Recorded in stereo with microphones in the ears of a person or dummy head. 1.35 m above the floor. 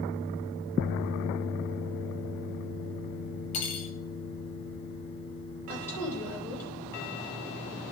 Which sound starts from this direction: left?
Cutlery clinking, at 3.5 s.